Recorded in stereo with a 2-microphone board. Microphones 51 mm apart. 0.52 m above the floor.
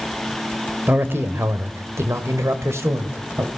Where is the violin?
I don't hear a violin.